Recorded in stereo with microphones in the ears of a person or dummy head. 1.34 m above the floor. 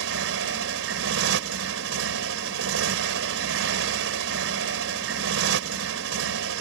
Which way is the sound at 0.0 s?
75° right (ahead or behind).